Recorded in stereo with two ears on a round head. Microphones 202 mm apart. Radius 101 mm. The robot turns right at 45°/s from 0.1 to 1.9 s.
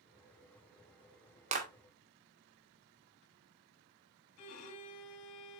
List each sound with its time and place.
1.5 s a clap: 35° right (ahead or behind), 2 m; by 1.7 s 40° right (ahead or behind), 2 m
4.4 s a violin: 75° left (ahead or behind), 2.5 m